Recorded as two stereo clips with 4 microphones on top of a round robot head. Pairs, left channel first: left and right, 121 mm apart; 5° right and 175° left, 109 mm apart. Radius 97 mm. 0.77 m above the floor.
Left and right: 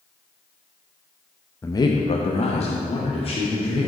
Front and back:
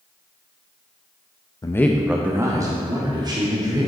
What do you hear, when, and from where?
1.6 s a man speaking: 30° left, 0.7 m; by 3.9 s 130° left, 3 m